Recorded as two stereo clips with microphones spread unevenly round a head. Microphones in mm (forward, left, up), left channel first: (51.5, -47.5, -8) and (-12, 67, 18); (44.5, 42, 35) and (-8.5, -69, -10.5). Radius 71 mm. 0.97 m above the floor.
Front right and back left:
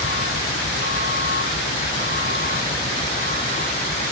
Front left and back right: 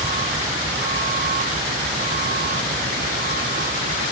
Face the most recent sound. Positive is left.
turn(degrees=-110)